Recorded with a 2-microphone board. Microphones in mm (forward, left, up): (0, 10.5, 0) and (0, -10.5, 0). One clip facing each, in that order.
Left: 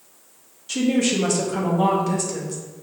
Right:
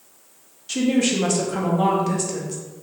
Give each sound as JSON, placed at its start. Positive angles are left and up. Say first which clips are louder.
{"t": 0.7, "sound": "a woman speaking", "louder": "even", "side_deg": -10, "distance_m": 0.9}